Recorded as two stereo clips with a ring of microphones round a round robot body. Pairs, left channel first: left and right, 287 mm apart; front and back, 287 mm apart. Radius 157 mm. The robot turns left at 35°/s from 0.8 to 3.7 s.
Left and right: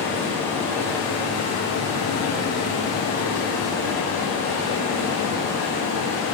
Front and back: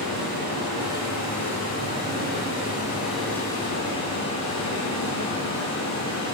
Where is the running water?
175° left, 3 m; by 6.3 s 70° left, 3 m.